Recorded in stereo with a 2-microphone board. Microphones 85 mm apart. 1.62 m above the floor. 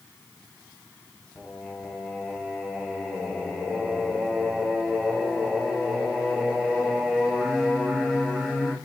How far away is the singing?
About 1.7 m.